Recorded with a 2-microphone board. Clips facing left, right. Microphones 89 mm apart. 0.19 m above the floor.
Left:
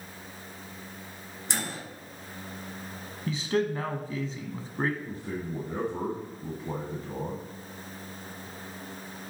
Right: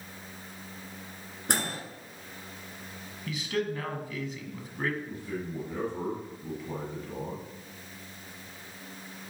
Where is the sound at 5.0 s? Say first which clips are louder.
Left 1 dB; 40° left (ahead or behind), 1.6 m.